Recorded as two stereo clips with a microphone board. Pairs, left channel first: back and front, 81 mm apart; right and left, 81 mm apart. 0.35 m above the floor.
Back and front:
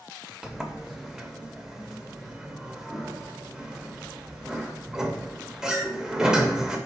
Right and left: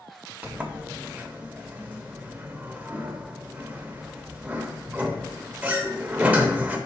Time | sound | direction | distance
0.4 | a sliding door | 65° left | 0.6 m